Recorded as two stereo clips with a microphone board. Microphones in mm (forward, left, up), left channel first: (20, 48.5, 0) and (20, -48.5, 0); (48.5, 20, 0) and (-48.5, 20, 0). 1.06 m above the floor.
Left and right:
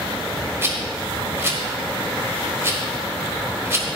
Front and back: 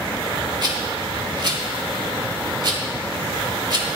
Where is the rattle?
150° right, 1.4 m.